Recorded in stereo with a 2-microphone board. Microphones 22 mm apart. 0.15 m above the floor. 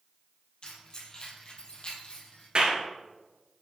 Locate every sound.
0.6 s keys jangling: 40° left (ahead or behind), 3.5 m
2.5 s a clap: 45° right (ahead or behind), 2 m